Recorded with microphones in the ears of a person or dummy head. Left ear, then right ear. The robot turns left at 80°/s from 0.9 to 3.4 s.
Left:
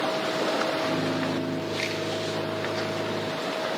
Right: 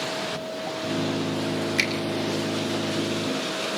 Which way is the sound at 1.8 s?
70° right (ahead or behind).